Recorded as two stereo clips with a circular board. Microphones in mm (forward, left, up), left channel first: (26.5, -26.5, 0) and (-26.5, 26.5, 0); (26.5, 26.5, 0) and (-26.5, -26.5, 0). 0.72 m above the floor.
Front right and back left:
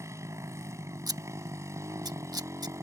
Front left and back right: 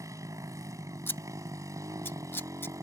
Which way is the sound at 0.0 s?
Straight behind.